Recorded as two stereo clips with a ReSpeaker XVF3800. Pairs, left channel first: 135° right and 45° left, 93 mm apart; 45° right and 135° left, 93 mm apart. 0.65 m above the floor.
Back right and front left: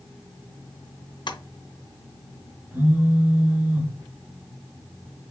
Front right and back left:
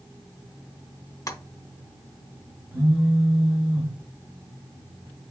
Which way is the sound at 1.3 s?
100° right.